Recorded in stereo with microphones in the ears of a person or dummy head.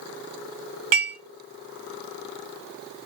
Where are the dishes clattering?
45° right (ahead or behind), 1.6 m.